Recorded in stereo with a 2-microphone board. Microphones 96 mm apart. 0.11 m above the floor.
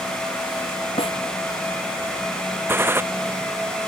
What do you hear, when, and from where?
1.0 s a snare drum: 80° left
2.7 s a gunshot: 25° right (ahead or behind)